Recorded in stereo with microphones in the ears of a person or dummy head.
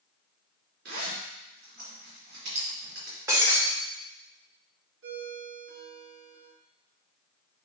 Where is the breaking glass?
20° right (ahead or behind), 1.6 m.